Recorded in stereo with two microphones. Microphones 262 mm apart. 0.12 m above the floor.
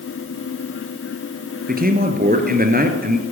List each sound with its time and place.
1.7 s a man speaking: 35° right (ahead or behind), 1.9 m